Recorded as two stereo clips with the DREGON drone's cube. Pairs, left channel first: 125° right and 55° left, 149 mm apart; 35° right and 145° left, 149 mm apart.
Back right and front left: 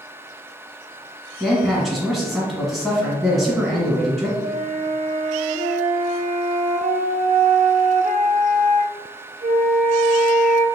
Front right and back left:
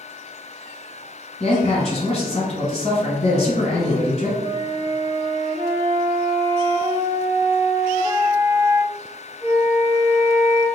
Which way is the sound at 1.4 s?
35° right.